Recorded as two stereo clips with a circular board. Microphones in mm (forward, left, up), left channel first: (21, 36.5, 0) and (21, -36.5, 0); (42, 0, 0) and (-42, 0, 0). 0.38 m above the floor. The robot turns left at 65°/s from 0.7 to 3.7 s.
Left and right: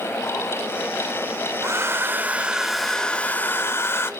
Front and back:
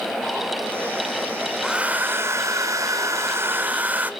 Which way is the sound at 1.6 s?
105° right.